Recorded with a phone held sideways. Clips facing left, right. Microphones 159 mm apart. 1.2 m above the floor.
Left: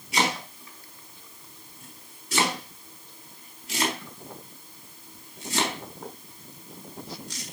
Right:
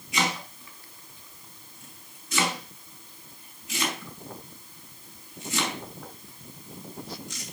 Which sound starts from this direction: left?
Chopping, at 0.1 s.